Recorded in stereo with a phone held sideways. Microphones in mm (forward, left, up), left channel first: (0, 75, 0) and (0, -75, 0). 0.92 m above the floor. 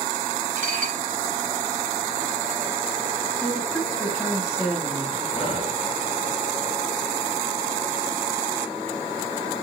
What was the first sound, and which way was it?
Dishes clattering, 60° right (ahead or behind).